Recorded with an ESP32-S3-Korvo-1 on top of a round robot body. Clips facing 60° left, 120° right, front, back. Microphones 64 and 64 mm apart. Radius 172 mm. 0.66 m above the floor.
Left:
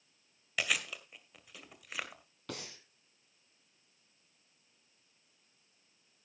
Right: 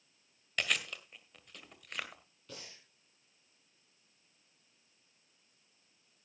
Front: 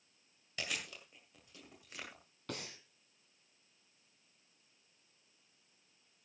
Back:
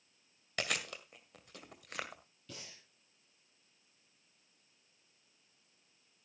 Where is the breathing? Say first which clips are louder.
Left 6 dB, front 7 dB; 35° left, 1.9 m.